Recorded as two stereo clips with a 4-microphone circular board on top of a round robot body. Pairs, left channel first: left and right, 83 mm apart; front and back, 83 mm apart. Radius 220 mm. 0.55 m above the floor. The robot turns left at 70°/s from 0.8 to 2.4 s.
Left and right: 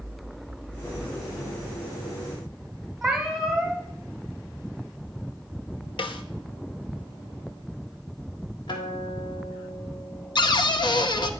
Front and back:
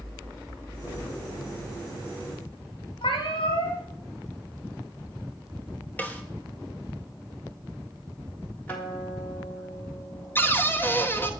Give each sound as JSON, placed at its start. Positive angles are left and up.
{"t": 3.0, "sound": "a cat meowing", "azimuth_deg": 0, "distance_m": 1.5}
{"t": 6.0, "sound": "a snare drum", "azimuth_deg": 70, "distance_m": 0.8}
{"t": 8.7, "sound": "a guitar", "azimuth_deg": 70, "distance_m": 3.5}
{"t": 10.3, "sound": "a cupboard door", "azimuth_deg": 65, "distance_m": 1.0}